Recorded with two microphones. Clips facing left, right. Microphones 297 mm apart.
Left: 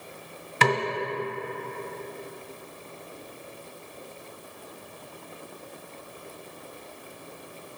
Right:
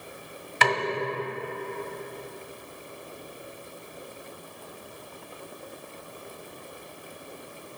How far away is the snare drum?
About 1.3 m.